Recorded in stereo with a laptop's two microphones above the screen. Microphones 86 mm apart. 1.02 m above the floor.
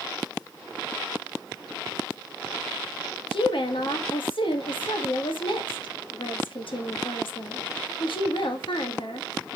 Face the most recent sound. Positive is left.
turn(degrees=80)